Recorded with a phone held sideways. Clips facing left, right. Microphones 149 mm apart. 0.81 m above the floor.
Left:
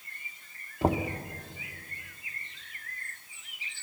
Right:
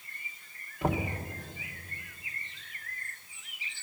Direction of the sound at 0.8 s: 30° left (ahead or behind).